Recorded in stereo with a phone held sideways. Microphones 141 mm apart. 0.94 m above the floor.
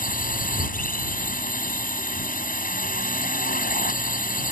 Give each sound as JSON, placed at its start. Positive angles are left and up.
{"t": 0.0, "sound": "a drone", "side_deg": 80}